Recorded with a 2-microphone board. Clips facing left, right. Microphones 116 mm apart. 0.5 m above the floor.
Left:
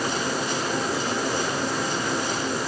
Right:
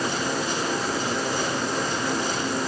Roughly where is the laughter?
I don't hear laughter.